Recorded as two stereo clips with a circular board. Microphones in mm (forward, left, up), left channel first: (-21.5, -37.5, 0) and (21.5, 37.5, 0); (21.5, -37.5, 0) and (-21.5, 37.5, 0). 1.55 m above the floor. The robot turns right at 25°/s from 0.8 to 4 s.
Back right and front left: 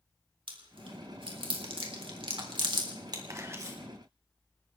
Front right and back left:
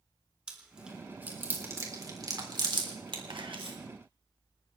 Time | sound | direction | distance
0.5 | chewing | 40° left | 3.5 m
3.3 | a camera shutter | 110° left | 3 m